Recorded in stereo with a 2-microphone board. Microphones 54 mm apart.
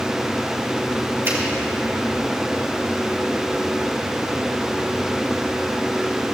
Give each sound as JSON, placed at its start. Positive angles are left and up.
{"t": 1.2, "sound": "a finger snap", "side_deg": -50, "distance_m": 3.5}